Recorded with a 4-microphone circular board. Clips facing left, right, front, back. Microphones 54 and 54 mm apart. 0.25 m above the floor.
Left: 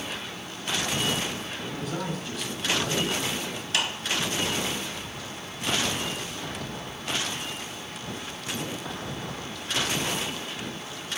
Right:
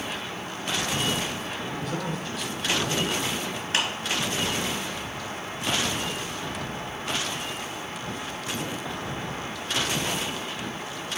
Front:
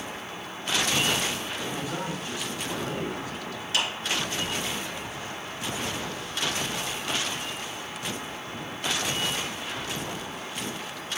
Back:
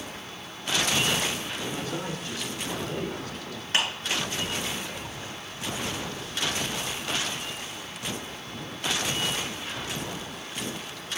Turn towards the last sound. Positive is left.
turn(degrees=-140)